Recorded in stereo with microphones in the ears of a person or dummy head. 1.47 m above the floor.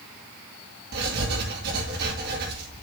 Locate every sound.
0.9 s writing: 60° right (ahead or behind), 2 m